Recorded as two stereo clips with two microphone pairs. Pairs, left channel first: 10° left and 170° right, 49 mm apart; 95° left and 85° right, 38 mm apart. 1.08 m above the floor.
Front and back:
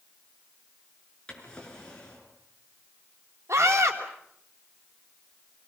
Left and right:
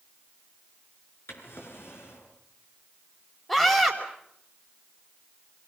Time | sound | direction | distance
1.3 | a drawer | 85° left | 6.5 m
3.5 | a scream | 170° left | 4.5 m